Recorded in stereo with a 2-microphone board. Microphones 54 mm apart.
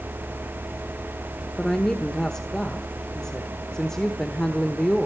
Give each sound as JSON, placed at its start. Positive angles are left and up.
{"t": 1.6, "sound": "a woman speaking", "side_deg": 10, "distance_m": 1.2}